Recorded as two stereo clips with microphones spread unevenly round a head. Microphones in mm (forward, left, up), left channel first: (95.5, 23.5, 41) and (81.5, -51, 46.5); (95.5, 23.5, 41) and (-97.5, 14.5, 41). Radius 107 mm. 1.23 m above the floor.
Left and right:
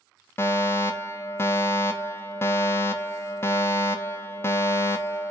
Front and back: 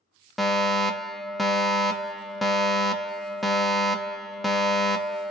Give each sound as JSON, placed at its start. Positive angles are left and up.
{"t": 0.4, "sound": "a fire alarm", "azimuth_deg": 95, "distance_m": 1.0}